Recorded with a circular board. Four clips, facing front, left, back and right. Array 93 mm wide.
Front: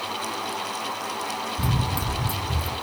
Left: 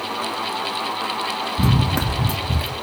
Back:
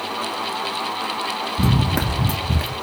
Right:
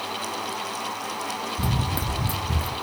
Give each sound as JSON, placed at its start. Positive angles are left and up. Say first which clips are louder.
{"t": 1.6, "sound": "running footsteps", "louder": "left 9 dB, back 9 dB", "azimuth_deg": 130, "distance_m": 0.9}